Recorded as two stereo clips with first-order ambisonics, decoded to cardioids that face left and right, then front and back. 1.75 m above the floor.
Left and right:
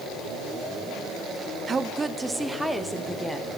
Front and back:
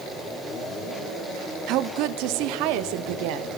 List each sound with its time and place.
1.7 s a woman speaking: 160° right, 0.5 m; by 3.5 s 175° left, 1.6 m